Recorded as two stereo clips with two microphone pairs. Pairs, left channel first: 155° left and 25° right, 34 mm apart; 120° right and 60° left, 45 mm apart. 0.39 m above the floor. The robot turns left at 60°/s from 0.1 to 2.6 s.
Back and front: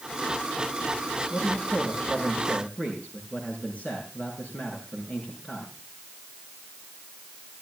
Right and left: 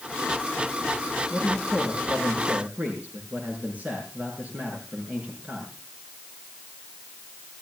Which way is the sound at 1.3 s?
170° right.